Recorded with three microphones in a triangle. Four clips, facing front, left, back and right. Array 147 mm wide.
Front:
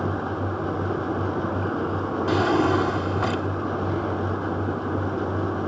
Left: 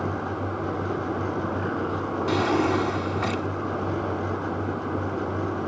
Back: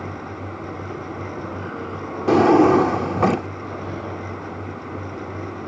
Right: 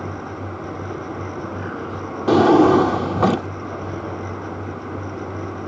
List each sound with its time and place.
2.3 s a drawer: 130° right